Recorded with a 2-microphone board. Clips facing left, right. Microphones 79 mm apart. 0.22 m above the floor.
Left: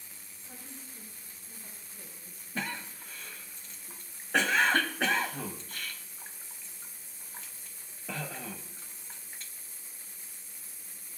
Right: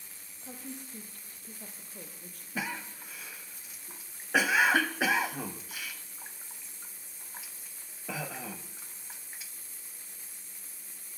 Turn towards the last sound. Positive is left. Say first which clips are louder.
# right 1 dB
turn(degrees=-10)  # may be behind; listen again after turning